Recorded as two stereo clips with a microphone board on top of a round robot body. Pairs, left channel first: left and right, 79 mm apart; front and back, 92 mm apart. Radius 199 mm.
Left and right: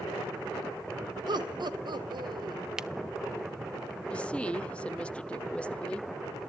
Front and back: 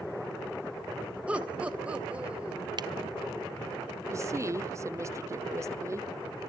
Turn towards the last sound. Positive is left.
turn(degrees=155)